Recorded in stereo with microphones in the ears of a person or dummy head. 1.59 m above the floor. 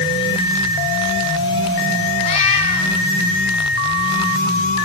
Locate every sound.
2.2 s a cat meowing: 35° left (ahead or behind), 6.5 m